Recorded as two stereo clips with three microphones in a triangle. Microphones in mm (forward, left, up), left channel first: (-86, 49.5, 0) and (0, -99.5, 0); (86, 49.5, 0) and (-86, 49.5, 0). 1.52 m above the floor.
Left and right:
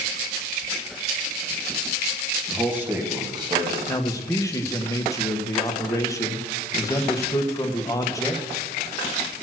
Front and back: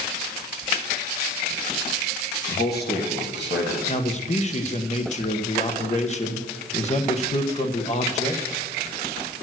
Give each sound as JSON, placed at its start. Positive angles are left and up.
{"t": 2.5, "sound": "a man speaking", "azimuth_deg": 30, "distance_m": 1.6}
{"t": 3.9, "sound": "a man speaking", "azimuth_deg": 50, "distance_m": 1.2}